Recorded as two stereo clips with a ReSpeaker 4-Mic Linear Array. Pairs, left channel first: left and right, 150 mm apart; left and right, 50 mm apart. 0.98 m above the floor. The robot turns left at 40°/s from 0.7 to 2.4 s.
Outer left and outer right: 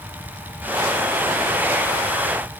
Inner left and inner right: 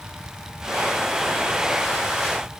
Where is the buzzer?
I don't hear a buzzer.